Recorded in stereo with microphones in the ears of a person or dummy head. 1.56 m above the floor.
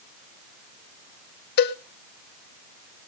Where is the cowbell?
60° left (ahead or behind), 0.8 m.